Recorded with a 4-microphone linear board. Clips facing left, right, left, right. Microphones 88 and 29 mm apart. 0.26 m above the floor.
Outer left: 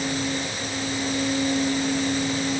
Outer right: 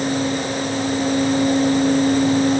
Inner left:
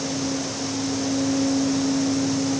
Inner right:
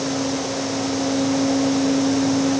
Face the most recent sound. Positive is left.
No sound to turn to.